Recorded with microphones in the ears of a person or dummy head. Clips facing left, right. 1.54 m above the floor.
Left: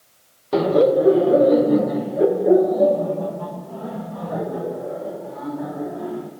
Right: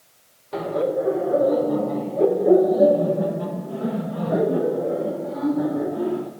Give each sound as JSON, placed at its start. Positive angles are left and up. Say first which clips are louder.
{"t": 0.5, "sound": "laughter", "louder": "left 7 dB", "side_deg": 60, "distance_m": 1.6}